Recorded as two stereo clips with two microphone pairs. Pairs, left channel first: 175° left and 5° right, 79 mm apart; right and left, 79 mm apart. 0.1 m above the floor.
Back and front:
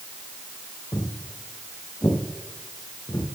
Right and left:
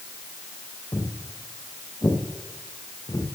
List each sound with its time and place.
0.9 s footsteps: 140° right, 2.5 m; by 3.2 s 130° right, 3.5 m